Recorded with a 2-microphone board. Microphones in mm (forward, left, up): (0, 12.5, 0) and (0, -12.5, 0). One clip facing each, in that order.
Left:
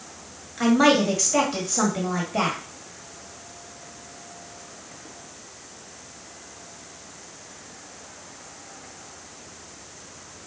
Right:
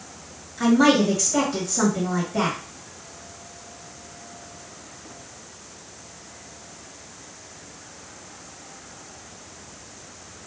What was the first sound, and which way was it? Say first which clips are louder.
A woman speaking: right 1 dB; 30° left (ahead or behind).